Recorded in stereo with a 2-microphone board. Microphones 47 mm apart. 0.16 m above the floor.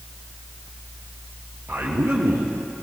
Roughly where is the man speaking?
Right.